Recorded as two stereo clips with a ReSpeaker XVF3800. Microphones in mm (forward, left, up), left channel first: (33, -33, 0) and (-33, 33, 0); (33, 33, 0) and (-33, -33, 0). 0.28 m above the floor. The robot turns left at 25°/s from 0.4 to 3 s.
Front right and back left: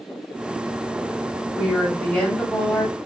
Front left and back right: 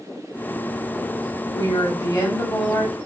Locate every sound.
1.6 s a woman speaking: 45° left, 1.2 m; by 3.0 s 10° left, 1.2 m